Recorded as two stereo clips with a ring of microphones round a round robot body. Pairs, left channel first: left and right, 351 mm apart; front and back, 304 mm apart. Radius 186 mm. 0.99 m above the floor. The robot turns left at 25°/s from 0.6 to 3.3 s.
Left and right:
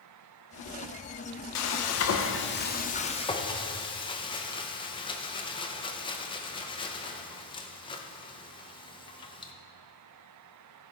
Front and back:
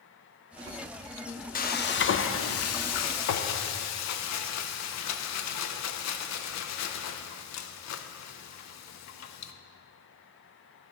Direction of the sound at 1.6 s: 60° left.